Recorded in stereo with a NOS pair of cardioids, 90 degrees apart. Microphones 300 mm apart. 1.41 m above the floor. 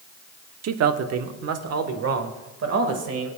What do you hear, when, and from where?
0.6 s a man speaking: 60° right, 1.0 m; by 3.3 s 55° right, 2.5 m